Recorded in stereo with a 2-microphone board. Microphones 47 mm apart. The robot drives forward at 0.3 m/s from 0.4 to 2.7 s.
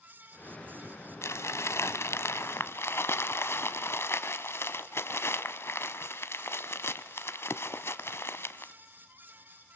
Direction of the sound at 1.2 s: 75° left (ahead or behind).